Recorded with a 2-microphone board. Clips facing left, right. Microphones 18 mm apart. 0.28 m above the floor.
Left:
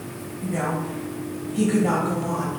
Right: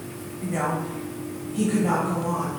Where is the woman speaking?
20° right (ahead or behind), 1.1 m; by 2.6 s 35° left (ahead or behind), 1.3 m.